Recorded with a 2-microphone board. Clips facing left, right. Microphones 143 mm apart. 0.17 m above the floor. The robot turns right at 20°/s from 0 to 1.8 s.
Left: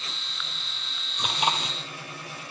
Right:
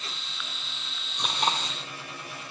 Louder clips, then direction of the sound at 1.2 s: Left 1 dB; 5° left (ahead or behind).